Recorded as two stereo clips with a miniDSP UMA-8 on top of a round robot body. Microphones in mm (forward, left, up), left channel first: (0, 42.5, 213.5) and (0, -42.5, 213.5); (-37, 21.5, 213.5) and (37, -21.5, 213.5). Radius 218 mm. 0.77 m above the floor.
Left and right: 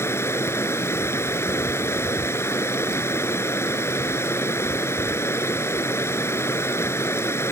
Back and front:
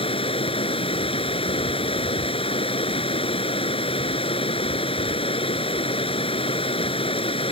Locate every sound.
0.0 s running water: 150° left